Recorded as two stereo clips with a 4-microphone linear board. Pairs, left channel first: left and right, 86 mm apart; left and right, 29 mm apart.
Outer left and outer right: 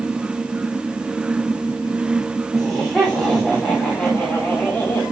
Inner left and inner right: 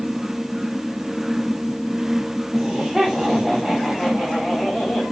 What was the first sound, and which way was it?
Laughter, centre (ahead or behind).